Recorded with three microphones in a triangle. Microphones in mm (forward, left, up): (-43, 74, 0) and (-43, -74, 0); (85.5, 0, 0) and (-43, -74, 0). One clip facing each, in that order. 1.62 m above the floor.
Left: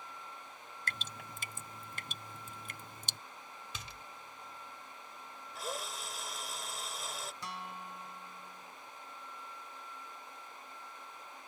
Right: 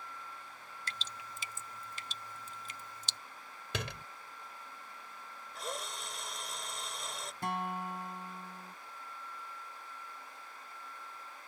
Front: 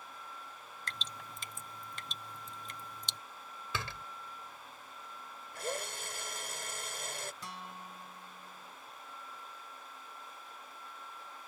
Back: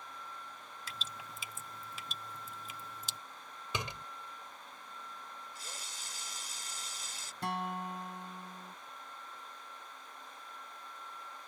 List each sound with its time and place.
0.9 s dripping: 125° left
3.7 s a door slam: 80° right
5.5 s a drill: straight ahead
7.4 s a guitar: 125° right